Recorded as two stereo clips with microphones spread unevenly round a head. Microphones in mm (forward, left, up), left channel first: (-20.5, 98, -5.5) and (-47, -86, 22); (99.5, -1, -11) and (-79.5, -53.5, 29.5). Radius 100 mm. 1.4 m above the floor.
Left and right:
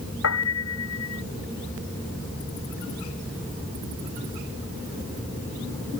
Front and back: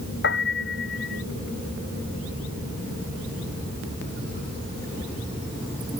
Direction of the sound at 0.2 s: 60° left.